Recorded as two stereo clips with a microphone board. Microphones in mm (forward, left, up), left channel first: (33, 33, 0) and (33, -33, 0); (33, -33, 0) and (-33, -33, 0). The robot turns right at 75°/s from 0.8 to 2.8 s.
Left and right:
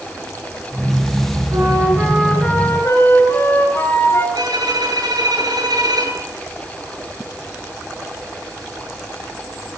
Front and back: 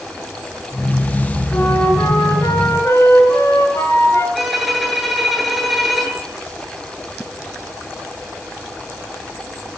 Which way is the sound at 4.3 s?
90° right.